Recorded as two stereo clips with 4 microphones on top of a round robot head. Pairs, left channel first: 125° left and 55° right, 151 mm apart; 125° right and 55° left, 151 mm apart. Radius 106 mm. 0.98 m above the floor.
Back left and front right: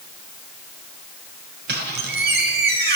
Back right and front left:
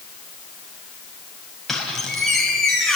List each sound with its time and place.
1.7 s a squeak: 35° right, 4 m